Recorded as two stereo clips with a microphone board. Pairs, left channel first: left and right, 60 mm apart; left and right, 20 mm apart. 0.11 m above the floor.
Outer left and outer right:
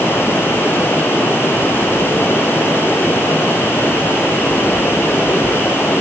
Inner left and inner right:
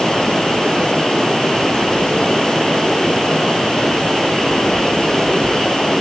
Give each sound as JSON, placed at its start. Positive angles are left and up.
{"t": 0.0, "sound": "running water", "side_deg": 40, "distance_m": 4.0}